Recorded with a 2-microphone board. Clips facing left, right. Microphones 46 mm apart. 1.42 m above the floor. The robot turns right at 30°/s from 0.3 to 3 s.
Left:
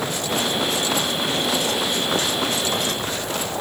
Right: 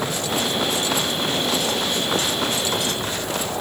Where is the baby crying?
No baby crying in this recording.